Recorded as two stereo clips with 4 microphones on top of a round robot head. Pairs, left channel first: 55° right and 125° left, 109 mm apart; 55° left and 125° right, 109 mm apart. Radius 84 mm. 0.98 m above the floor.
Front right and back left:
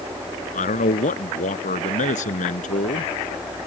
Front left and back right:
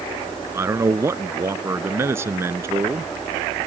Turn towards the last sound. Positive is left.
turn(degrees=-55)